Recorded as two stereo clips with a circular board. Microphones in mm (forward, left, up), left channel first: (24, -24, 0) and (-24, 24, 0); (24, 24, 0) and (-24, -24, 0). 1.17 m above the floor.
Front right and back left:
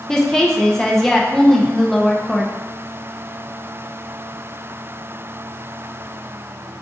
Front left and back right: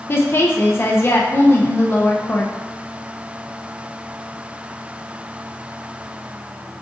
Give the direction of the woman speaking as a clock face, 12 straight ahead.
11 o'clock.